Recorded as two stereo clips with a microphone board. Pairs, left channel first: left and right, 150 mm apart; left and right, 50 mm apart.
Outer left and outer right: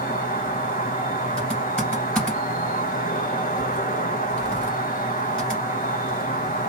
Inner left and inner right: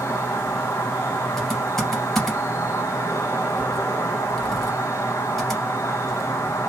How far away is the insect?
About 0.8 m.